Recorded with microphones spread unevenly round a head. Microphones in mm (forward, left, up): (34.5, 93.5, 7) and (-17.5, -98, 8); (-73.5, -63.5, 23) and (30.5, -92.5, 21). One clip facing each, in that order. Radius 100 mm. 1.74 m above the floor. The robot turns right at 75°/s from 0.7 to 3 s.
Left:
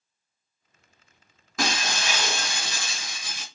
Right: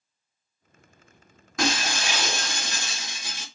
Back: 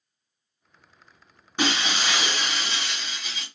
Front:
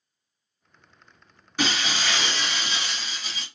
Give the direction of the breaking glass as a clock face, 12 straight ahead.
7 o'clock.